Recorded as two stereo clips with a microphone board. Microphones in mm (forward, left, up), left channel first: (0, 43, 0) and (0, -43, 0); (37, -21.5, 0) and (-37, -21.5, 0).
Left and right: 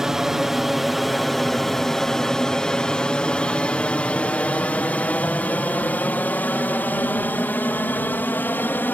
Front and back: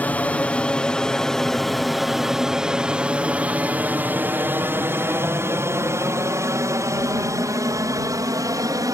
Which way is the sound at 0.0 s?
15° right.